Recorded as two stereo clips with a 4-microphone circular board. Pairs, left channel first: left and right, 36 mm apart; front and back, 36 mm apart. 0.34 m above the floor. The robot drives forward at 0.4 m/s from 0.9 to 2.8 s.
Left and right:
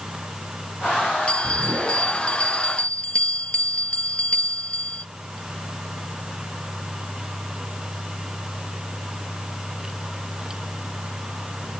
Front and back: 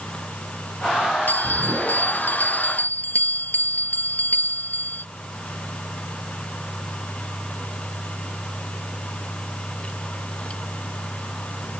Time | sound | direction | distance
1.3 | a bell | 30° left | ?